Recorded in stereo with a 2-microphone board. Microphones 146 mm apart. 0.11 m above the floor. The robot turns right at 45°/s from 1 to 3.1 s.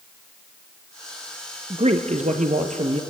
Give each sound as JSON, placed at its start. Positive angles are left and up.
{"t": 1.7, "sound": "a man speaking", "azimuth_deg": -120, "distance_m": 2.0}